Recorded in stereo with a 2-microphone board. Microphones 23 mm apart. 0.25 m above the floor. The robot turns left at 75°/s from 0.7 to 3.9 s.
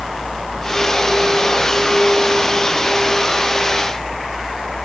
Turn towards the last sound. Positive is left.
No sound to turn to.